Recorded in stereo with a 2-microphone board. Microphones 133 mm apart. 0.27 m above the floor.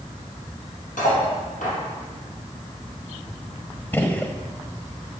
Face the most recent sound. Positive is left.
turn(degrees=15)  # may be behind; listen again after turning